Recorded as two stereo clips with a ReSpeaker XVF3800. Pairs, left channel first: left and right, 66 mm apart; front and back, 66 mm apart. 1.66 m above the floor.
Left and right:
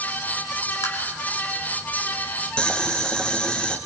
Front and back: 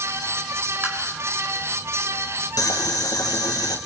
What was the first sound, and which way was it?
Tapping, 120° left.